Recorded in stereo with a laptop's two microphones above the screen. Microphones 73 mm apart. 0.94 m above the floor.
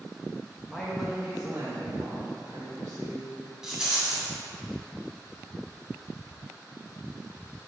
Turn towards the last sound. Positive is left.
turn(degrees=-10)  # may be behind; listen again after turning